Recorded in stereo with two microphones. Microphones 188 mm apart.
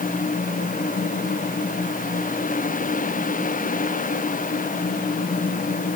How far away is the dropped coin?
I don't hear a dropped coin.